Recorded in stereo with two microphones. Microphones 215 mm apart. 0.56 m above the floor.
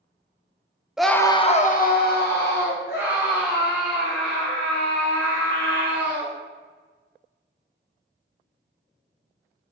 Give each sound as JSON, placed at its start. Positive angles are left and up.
{"t": 1.0, "sound": "a scream", "side_deg": -5, "distance_m": 0.6}